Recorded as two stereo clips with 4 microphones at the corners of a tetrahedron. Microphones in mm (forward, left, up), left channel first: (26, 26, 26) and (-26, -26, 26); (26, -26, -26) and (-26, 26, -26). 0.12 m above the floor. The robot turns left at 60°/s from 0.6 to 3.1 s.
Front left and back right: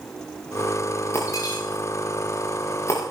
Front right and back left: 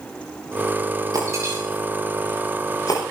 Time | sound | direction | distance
1.1 | breaking glass | 100° left | 6 m